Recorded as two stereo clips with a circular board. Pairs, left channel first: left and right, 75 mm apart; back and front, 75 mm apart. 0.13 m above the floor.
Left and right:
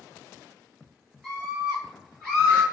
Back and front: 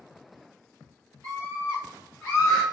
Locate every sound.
1.2 s a scream: 5° left, 1.7 m; by 2.6 s 175° left, 1.6 m